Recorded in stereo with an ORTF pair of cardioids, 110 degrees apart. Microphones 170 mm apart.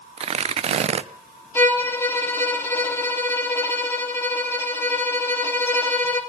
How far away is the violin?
About 2.5 m.